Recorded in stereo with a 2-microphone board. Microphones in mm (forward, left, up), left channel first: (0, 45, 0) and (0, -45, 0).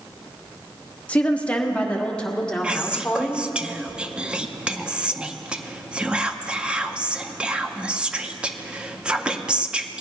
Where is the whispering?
10° right (ahead or behind), 0.6 m.